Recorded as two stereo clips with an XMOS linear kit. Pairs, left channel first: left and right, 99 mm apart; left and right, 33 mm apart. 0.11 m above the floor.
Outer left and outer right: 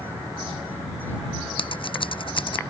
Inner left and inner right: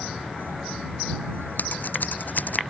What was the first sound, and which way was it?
Scissors, 55° left (ahead or behind).